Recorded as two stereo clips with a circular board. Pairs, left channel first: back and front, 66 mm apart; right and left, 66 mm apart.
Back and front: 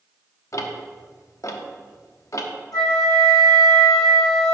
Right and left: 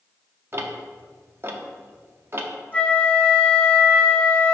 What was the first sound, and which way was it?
Ticking, 145° left.